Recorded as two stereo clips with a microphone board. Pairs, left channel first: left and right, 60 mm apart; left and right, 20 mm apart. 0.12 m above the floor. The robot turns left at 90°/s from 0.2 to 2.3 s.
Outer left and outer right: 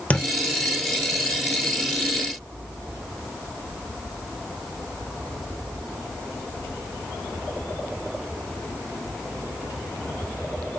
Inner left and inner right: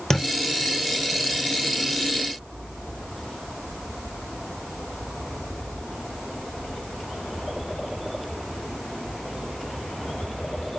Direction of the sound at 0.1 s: 20° left (ahead or behind).